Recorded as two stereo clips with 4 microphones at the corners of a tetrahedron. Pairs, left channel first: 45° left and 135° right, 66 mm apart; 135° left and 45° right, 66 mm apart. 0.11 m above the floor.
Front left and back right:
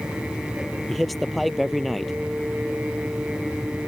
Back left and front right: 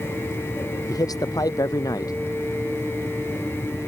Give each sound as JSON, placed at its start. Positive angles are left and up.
{"t": 0.9, "sound": "a man speaking", "azimuth_deg": 135}